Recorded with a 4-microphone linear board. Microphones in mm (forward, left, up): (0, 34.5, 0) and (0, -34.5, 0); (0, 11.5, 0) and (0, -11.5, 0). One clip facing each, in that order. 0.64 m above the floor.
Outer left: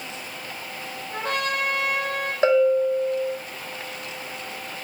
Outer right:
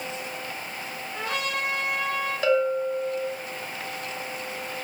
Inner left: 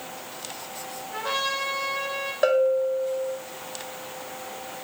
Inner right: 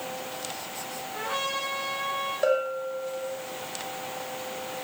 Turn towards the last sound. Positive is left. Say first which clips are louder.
# outer left 5 dB, inner left 6 dB
turn(degrees=35)  # may be behind; listen again after turning